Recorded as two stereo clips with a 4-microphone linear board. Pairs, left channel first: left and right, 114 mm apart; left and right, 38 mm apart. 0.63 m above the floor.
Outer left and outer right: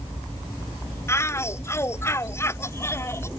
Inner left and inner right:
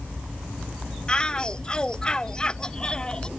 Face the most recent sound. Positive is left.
turn(degrees=25)  # may be behind; listen again after turning